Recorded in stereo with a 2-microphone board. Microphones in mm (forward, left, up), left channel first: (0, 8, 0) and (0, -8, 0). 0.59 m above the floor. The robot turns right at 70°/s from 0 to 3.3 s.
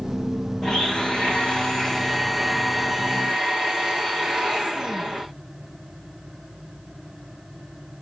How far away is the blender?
About 6.5 m.